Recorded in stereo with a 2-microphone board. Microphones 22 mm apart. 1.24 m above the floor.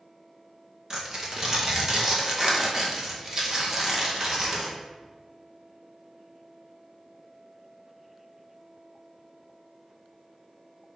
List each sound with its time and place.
0.9 s tearing paper: 20° right (ahead or behind), 0.7 m